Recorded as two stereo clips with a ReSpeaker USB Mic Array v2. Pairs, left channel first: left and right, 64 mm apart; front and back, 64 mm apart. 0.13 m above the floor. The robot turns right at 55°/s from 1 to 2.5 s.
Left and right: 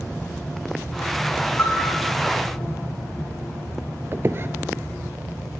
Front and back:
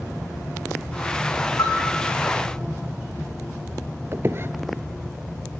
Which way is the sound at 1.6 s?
30° left.